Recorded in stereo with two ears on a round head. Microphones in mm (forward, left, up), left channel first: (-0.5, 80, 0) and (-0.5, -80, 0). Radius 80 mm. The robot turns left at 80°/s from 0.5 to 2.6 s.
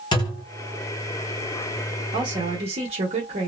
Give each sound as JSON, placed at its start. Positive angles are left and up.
{"t": 0.1, "sound": "a thud", "side_deg": 25, "distance_m": 1.1}
{"t": 2.1, "sound": "a woman speaking", "azimuth_deg": -40, "distance_m": 1.2}